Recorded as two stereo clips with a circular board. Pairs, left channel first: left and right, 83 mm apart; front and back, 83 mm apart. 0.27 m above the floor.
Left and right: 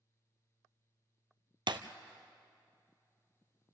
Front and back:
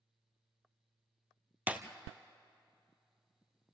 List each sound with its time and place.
1.7 s breaking glass: 110° right, 1.0 m